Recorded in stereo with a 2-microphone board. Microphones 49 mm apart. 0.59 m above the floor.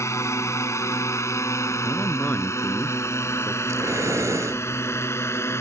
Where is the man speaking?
40° left (ahead or behind).